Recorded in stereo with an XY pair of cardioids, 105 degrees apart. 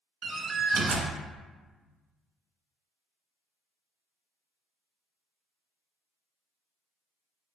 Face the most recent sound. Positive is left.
turn(degrees=-55)